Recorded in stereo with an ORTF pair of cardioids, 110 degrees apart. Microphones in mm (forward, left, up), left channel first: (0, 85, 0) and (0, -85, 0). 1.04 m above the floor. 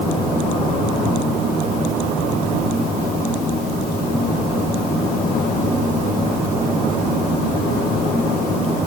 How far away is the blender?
No blender in this recording.